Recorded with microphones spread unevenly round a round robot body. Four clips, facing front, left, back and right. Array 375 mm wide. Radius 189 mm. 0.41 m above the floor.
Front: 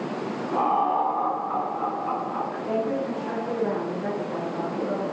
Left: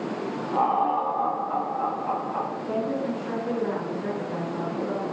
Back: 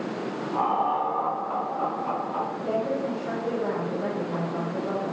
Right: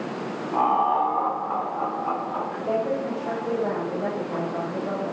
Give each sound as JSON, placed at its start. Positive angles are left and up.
{"t": 0.5, "sound": "laughter", "azimuth_deg": -85, "distance_m": 1.3}
{"t": 2.6, "sound": "a woman speaking", "azimuth_deg": -125, "distance_m": 1.9}